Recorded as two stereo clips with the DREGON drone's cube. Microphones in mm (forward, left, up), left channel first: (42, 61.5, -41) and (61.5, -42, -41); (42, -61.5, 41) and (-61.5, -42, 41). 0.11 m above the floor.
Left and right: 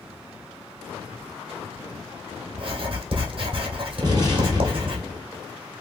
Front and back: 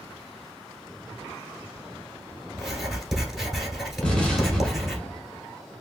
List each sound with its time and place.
2.5 s writing: 100° right, 1.3 m
4.0 s an explosion: 85° right, 1.7 m